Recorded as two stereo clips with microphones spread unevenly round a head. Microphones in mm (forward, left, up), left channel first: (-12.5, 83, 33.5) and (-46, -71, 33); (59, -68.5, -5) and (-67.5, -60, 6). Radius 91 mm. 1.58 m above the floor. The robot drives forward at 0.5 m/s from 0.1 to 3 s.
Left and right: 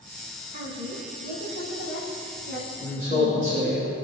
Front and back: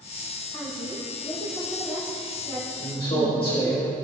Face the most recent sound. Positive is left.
turn(degrees=-50)